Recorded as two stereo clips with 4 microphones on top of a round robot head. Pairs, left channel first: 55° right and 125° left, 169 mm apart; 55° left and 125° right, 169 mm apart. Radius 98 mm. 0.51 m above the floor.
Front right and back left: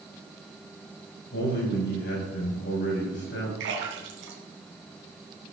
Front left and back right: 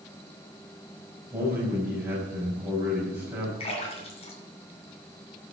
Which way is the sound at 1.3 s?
45° right.